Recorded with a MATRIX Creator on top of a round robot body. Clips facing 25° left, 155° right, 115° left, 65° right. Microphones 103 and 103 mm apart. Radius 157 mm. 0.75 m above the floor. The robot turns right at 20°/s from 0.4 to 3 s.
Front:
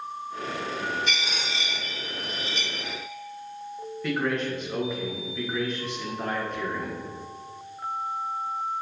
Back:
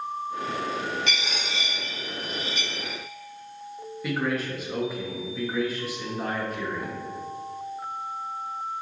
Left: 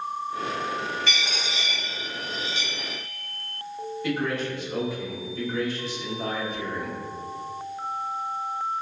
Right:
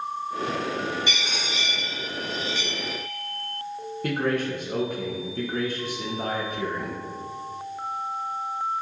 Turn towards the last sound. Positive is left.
turn(degrees=-70)